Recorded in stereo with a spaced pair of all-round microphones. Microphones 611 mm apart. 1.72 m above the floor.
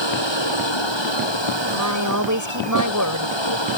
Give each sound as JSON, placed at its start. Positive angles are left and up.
{"t": 0.0, "sound": "a machine running", "side_deg": 45}
{"t": 1.7, "sound": "a woman speaking", "side_deg": -30}